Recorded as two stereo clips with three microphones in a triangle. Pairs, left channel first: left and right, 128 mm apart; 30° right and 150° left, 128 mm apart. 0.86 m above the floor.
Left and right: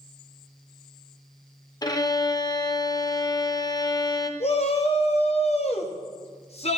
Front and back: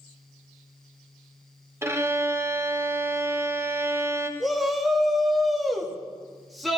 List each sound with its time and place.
1.8 s a violin: 105° left, 0.6 m
4.4 s a shout: 60° left, 1.1 m